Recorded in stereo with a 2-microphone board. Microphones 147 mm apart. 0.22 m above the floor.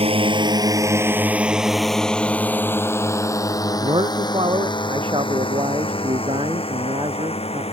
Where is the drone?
40° right (ahead or behind); by 7.7 s 40° left (ahead or behind).